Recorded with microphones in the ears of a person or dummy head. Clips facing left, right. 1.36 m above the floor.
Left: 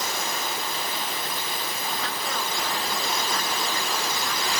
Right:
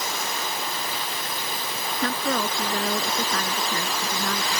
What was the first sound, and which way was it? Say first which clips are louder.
A woman speaking: right 10 dB; 55° right (ahead or behind).